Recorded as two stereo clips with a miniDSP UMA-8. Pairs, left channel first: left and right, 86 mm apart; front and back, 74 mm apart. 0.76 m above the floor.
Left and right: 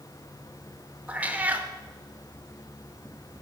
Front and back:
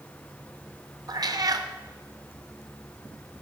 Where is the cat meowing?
160° right, 0.6 m.